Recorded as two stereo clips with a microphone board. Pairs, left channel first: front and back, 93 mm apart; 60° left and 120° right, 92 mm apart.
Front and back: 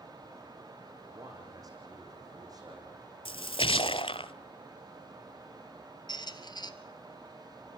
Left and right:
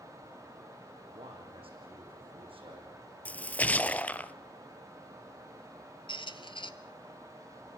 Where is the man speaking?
135° right, 8.5 m.